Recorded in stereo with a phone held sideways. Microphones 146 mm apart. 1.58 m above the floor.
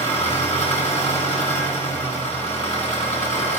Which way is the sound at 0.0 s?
50° left (ahead or behind).